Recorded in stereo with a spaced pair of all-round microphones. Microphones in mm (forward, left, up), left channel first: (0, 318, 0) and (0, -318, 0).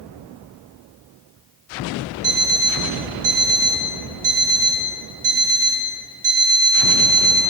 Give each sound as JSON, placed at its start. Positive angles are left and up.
{"t": 2.2, "sound": "an alarm clock", "side_deg": -40, "distance_m": 1.3}